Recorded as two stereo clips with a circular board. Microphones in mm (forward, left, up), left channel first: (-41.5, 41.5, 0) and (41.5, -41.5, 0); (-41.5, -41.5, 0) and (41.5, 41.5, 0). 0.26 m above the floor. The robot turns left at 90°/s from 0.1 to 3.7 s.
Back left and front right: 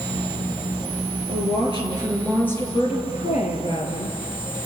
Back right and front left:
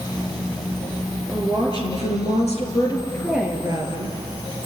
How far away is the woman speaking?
About 5 m.